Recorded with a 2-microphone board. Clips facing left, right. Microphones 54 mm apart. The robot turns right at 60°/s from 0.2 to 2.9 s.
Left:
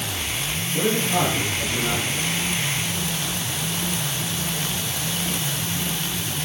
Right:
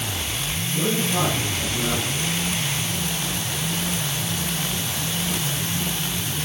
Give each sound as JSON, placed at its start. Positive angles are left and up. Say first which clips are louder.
{"t": 0.7, "sound": "a man speaking", "louder": "left 2 dB", "azimuth_deg": 115, "distance_m": 8.0}